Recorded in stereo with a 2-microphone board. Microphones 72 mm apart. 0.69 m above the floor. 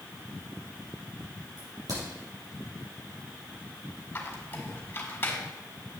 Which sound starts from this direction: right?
A crack, at 1.6 s.